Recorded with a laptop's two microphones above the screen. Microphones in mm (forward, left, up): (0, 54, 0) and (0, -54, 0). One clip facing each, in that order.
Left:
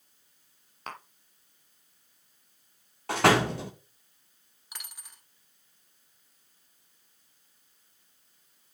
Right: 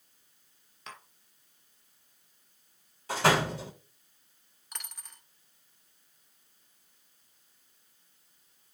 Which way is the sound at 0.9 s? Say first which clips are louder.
Left 6 dB; 50° left (ahead or behind).